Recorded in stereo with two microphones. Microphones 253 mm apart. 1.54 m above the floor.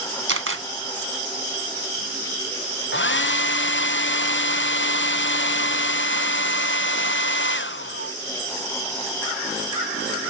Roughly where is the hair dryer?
Left.